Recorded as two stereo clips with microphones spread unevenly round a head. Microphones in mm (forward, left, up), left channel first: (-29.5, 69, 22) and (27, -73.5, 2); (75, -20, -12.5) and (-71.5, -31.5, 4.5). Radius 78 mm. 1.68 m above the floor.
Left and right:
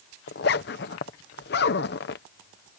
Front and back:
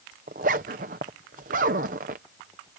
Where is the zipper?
140° left.